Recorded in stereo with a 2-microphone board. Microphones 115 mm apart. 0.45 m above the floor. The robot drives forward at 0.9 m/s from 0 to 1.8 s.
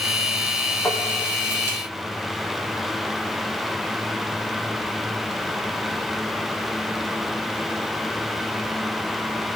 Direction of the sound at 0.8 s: 15° left (ahead or behind).